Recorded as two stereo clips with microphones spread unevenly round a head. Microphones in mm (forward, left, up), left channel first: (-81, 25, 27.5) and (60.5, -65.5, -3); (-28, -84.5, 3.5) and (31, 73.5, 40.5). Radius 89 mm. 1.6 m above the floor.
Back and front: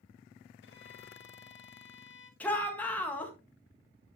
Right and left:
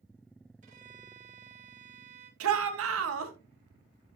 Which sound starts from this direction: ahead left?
A shout, at 2.4 s.